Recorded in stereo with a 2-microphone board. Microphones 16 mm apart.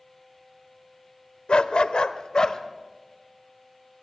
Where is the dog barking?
75° left (ahead or behind), 0.8 m; by 2.6 s 40° left (ahead or behind), 1.2 m.